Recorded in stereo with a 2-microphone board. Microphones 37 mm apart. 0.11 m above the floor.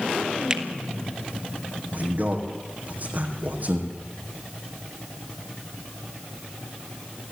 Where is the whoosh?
I don't hear a whoosh.